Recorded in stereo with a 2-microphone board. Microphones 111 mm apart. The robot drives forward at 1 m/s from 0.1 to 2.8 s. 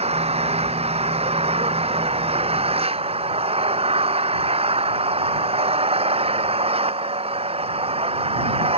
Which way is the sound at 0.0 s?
70° right (ahead or behind).